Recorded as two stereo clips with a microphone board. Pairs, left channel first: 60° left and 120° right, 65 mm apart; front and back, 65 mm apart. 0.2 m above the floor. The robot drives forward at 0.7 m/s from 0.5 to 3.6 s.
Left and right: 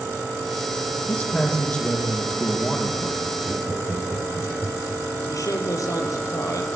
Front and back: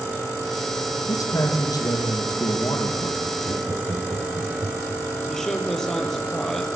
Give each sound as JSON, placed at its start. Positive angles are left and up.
{"t": 1.1, "sound": "a man speaking", "azimuth_deg": -5, "distance_m": 7.0}
{"t": 3.5, "sound": "laughter", "azimuth_deg": 170, "distance_m": 4.0}
{"t": 5.3, "sound": "a man speaking", "azimuth_deg": 85, "distance_m": 5.0}